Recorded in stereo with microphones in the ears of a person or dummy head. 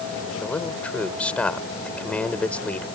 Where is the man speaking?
5° left (ahead or behind).